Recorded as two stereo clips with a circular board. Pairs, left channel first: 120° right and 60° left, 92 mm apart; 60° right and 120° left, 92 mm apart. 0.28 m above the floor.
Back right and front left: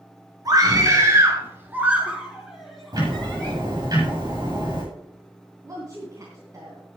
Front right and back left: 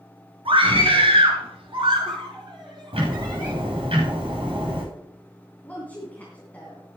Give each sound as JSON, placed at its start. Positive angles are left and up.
{"t": 0.5, "sound": "a scream", "azimuth_deg": 105, "distance_m": 5.0}
{"t": 2.9, "sound": "ticking", "azimuth_deg": 105, "distance_m": 7.0}
{"t": 5.6, "sound": "a woman speaking", "azimuth_deg": 10, "distance_m": 3.0}